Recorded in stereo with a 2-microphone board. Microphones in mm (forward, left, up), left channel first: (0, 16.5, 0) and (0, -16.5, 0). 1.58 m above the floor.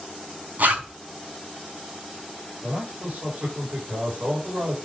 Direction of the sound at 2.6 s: 70° right (ahead or behind).